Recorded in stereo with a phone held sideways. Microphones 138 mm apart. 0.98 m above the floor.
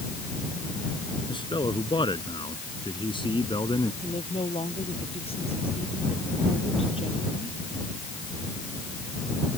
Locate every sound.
1.3 s a man speaking: 35° left (ahead or behind)
4.0 s a woman speaking: 45° left (ahead or behind)